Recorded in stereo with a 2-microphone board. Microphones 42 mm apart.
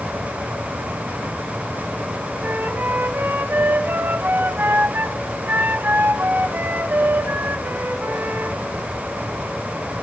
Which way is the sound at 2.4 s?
55° right (ahead or behind).